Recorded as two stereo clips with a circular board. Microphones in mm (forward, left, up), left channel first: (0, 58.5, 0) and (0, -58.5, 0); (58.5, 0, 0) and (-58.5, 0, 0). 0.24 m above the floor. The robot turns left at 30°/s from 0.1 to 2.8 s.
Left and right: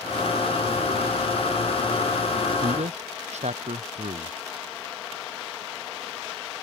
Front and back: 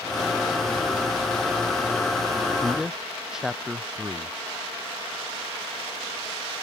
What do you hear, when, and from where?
2.6 s a man speaking: 90° right; by 4.3 s 95° right